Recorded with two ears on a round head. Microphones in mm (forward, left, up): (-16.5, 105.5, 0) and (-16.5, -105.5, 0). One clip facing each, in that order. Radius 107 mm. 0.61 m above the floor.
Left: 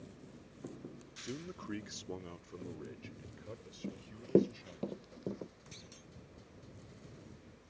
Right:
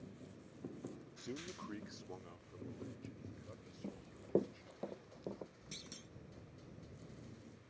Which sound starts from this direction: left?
Running footsteps, at 3.8 s.